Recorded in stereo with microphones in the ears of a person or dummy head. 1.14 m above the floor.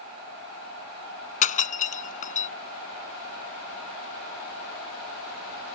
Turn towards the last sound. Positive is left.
turn(degrees=40)  # may be behind; listen again after turning